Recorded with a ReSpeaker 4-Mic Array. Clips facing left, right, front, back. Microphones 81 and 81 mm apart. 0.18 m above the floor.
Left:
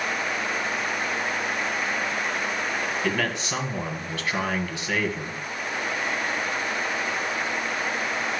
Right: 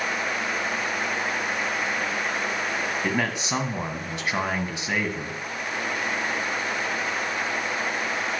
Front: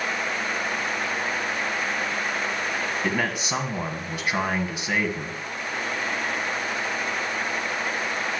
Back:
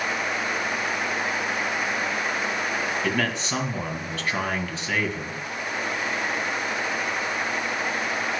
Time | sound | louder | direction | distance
3.0 | a man speaking | even, even | 50° right | 1.6 m